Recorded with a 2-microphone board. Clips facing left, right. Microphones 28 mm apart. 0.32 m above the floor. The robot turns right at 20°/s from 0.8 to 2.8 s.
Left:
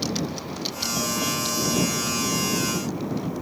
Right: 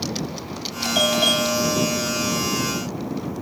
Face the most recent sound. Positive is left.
turn(degrees=-65)